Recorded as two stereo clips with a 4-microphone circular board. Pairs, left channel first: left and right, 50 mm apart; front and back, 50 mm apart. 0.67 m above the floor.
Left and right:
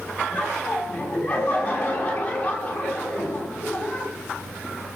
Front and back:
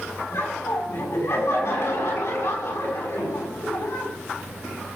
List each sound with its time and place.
0.3 s laughter: 25° left, 6.5 m